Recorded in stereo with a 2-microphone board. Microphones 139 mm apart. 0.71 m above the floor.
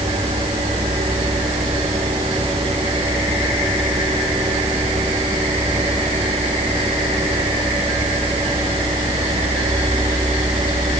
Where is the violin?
No violin in this recording.